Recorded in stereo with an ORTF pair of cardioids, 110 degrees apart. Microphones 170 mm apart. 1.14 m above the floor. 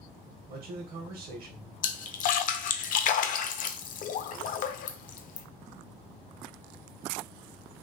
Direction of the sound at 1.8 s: 55° left.